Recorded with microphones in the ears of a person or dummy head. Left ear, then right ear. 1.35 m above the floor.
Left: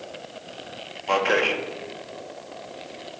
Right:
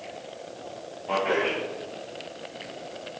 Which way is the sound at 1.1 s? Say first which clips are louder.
Left 4 dB; 55° left (ahead or behind).